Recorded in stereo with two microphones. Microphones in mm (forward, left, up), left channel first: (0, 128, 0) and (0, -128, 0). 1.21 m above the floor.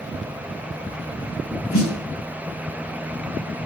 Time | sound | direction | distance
1.7 | a snare drum | 60° left (ahead or behind) | 1.6 m